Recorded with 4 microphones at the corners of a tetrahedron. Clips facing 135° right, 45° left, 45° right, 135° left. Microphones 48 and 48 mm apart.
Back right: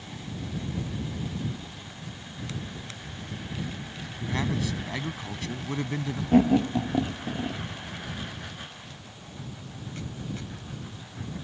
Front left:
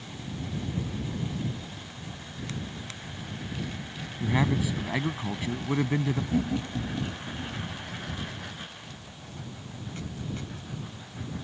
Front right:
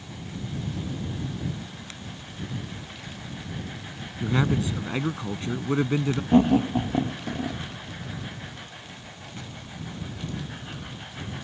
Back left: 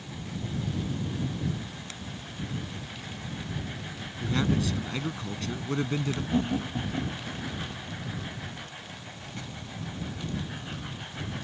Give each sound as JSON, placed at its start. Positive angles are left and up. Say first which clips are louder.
{"t": 4.2, "sound": "a man speaking", "louder": "front left 3 dB, front right 3 dB", "azimuth_deg": -10}
{"t": 6.3, "sound": "laughter", "louder": "back right 8 dB, front right 11 dB", "azimuth_deg": -95}